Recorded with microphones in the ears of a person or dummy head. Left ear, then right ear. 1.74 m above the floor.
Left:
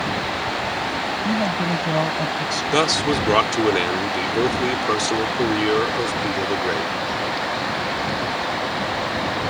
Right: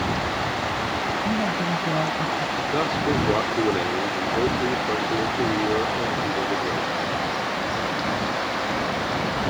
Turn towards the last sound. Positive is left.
turn(degrees=70)  # may be behind; listen again after turning